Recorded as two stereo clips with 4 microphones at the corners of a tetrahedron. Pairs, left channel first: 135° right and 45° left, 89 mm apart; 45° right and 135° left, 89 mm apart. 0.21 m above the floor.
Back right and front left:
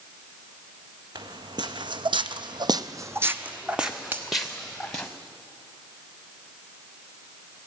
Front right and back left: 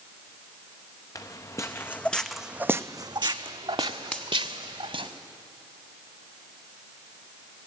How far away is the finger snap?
About 1.2 m.